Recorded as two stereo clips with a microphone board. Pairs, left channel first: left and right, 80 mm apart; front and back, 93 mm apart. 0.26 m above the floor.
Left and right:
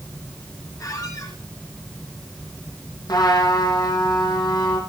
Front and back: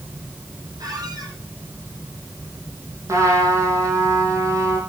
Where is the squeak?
135° left, 6 m.